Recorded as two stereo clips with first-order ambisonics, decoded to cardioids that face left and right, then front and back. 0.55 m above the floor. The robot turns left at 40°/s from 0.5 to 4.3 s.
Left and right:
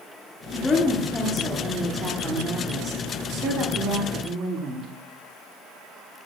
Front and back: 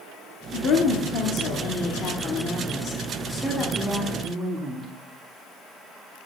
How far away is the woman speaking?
About 1.1 m.